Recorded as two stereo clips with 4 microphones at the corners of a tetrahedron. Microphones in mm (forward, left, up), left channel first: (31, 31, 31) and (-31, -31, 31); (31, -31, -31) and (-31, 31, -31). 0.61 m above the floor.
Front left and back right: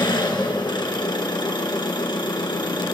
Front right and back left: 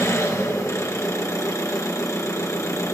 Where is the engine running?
10° left, 1.8 m.